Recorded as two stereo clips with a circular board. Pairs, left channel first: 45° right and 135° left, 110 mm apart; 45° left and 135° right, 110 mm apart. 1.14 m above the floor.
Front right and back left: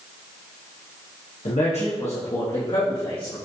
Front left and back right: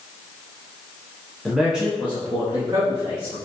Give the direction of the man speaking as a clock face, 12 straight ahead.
1 o'clock.